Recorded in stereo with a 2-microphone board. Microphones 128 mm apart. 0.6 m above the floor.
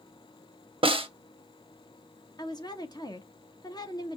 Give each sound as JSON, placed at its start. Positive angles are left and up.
{"t": 0.8, "sound": "a snare drum", "side_deg": -45, "distance_m": 0.8}
{"t": 2.4, "sound": "a woman speaking", "side_deg": 35, "distance_m": 0.8}